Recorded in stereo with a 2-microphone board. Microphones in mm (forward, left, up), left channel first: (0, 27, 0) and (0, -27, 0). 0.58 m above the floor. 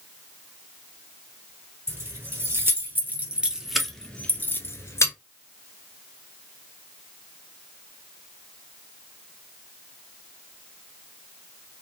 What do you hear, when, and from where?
1.9 s keys jangling: 50° right (ahead or behind), 1.3 m; by 5.1 s 60° left (ahead or behind), 0.8 m